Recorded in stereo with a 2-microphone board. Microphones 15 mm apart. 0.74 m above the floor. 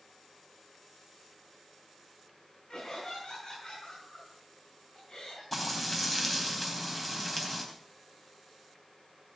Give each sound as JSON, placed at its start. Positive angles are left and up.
{"t": 2.7, "sound": "laughter", "side_deg": 65, "distance_m": 7.0}
{"t": 5.5, "sound": "frying", "side_deg": 10, "distance_m": 3.5}